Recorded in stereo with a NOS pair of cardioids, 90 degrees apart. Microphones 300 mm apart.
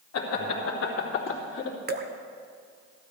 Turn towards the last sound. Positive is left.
turn(degrees=-35)